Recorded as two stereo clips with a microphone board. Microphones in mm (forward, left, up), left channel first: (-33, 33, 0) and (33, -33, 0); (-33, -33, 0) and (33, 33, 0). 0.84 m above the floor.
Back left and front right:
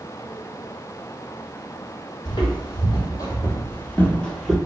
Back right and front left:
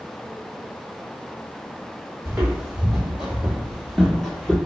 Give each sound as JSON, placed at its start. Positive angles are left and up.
{"t": 2.2, "sound": "footsteps", "azimuth_deg": 125, "distance_m": 1.4}